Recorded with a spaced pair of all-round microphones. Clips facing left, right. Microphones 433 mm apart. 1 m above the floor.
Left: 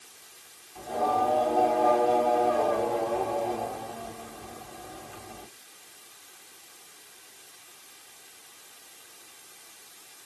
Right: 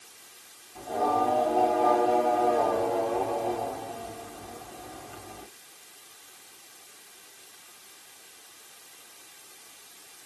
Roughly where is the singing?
Right.